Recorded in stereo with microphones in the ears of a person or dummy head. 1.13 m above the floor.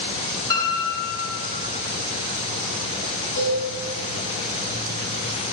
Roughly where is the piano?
Left.